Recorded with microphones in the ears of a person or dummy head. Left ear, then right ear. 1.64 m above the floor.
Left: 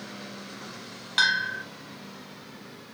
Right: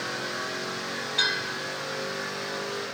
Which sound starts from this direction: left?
A bell, at 1.2 s.